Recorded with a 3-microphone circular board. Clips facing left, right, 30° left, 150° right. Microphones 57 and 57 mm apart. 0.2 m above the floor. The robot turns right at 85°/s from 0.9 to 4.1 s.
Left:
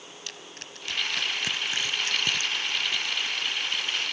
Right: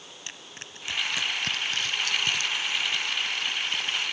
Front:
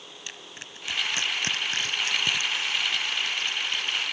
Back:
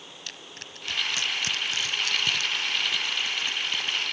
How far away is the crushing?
About 0.9 m.